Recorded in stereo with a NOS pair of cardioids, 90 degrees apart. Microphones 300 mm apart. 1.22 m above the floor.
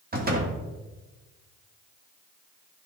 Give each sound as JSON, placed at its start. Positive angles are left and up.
{"t": 0.1, "sound": "a door slam", "azimuth_deg": -30, "distance_m": 2.0}